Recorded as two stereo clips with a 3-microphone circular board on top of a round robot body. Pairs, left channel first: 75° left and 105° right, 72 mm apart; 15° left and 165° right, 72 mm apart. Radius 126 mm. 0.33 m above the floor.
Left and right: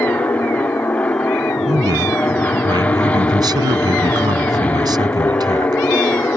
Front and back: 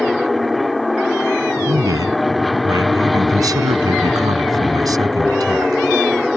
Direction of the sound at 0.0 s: 105° left.